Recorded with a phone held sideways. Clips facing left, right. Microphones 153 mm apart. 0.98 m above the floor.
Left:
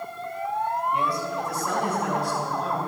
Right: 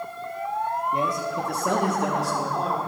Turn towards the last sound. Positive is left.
turn(degrees=-80)